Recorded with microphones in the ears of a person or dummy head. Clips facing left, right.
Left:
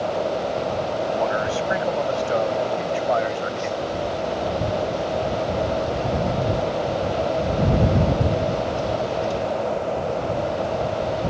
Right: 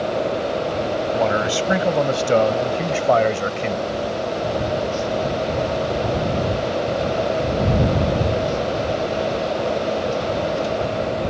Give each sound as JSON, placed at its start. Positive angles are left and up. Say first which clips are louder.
{"t": 1.1, "sound": "a man speaking", "louder": "right 4 dB", "side_deg": -50}